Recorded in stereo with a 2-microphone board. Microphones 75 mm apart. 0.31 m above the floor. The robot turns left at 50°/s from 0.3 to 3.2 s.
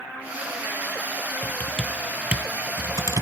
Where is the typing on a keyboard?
25° left (ahead or behind), 0.9 m; by 3.2 s 60° right (ahead or behind), 0.9 m.